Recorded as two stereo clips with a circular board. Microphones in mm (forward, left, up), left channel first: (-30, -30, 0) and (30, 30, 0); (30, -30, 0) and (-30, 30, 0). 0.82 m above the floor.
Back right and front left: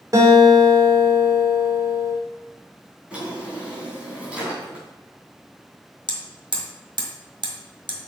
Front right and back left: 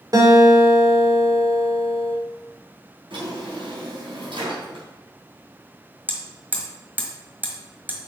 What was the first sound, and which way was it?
A guitar, 90° left.